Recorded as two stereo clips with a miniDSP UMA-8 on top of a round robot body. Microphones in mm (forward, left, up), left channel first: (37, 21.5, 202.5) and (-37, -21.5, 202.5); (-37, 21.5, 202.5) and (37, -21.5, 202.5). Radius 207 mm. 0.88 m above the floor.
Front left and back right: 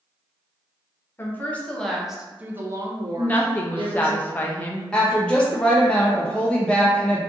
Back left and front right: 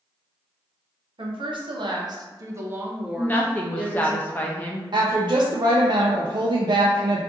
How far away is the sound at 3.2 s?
About 0.6 m.